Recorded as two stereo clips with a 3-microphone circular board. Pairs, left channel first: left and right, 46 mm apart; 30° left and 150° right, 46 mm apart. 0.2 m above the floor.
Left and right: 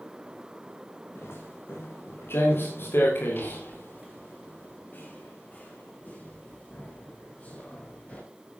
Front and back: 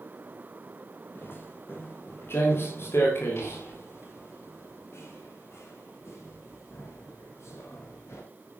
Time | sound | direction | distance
1.1 | footsteps | 65° left | 6 m